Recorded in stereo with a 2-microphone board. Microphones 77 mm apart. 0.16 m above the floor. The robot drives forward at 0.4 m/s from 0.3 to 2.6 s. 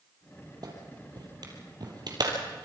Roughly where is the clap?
Right.